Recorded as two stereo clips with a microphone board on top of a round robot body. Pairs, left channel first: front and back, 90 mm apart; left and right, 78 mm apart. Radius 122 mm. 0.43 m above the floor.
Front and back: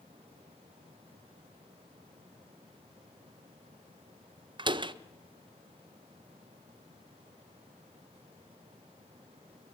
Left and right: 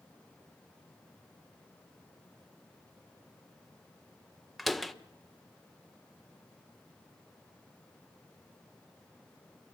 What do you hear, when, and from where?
4.6 s a door slam: straight behind, 1.5 m